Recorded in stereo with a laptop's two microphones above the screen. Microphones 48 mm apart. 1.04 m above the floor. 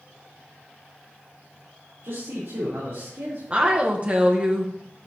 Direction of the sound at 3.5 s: 30° right (ahead or behind).